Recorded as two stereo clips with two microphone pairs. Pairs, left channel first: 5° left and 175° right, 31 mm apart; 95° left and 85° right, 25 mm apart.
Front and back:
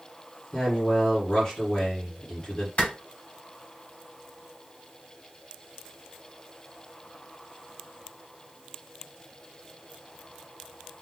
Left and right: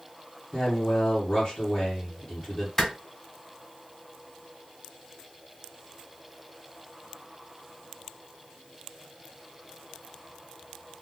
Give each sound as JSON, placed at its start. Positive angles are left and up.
{"t": 0.5, "sound": "a man speaking", "azimuth_deg": 55, "distance_m": 1.5}
{"t": 2.8, "sound": "a clap", "azimuth_deg": 25, "distance_m": 2.5}